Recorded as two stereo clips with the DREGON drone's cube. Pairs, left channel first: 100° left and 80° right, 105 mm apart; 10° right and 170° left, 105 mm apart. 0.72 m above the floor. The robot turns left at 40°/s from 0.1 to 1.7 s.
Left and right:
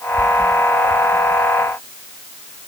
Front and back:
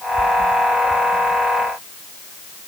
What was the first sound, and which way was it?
Only background noise.